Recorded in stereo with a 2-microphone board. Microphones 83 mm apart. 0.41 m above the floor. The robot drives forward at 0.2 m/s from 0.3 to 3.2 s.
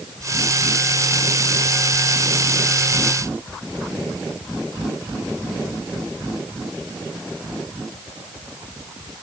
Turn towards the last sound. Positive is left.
No sound to turn to.